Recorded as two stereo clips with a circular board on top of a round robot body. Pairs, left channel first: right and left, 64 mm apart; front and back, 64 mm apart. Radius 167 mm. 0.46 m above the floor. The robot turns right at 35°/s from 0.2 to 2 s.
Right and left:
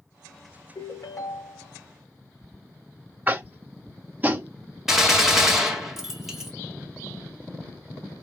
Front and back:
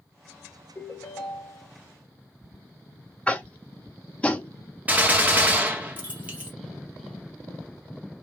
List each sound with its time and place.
0.8 s a ringtone: 60° right, 1.1 m; by 1.7 s 30° right, 1.1 m
3.3 s tapping: 55° left, 1.0 m
4.9 s a gunshot: 170° left, 1.4 m